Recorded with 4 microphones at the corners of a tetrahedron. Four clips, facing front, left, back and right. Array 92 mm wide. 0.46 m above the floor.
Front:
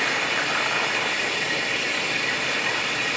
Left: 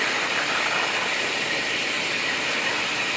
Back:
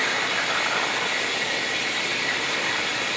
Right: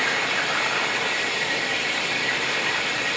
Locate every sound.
0.0 s running water: 130° right, 1.2 m